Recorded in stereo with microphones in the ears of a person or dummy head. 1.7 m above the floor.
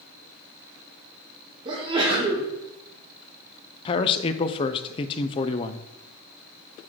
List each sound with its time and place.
1.6 s a sneeze: 30° right (ahead or behind), 2 m
3.9 s a man speaking: 25° left (ahead or behind), 0.5 m